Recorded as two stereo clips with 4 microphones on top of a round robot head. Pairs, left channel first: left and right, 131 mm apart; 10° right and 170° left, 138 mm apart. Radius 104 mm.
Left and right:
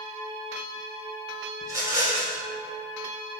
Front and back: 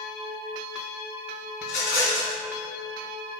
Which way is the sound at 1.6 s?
15° right.